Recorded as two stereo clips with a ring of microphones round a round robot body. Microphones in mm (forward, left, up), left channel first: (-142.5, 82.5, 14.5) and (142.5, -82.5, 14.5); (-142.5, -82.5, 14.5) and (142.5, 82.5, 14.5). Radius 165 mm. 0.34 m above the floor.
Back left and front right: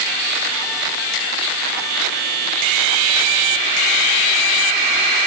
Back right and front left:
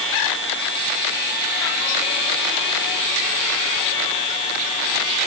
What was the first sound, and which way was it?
Only background noise.